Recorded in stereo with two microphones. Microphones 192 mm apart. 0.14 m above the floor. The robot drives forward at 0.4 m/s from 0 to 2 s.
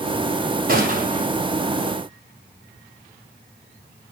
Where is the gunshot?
50° right (ahead or behind), 2.5 m; by 1.3 s 45° right (ahead or behind), 3 m.